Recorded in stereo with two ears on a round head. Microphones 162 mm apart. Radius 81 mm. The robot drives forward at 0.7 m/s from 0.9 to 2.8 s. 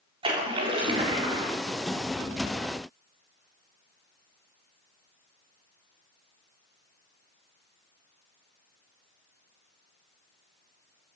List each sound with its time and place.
0.2 s a splash: 30° right (ahead or behind), 4 m; by 1.5 s 25° right (ahead or behind), 4.5 m